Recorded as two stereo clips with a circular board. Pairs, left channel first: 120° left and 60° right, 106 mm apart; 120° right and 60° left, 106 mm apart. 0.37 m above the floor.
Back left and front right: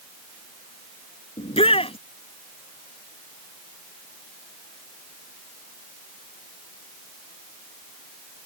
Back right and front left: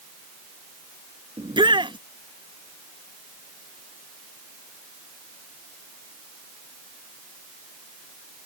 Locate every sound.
1.4 s a shout: 95° left